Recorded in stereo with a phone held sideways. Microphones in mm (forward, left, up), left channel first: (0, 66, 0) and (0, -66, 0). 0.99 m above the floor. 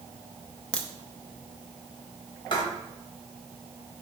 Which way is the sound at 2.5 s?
35° left (ahead or behind).